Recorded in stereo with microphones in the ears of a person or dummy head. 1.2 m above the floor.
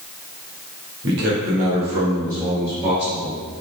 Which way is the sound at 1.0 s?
65° right (ahead or behind).